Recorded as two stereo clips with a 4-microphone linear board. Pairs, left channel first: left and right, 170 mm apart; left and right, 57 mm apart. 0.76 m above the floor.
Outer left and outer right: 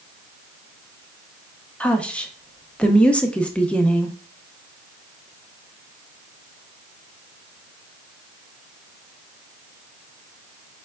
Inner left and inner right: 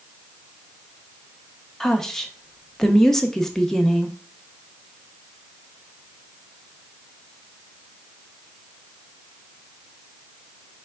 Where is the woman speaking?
5° left (ahead or behind), 0.6 m.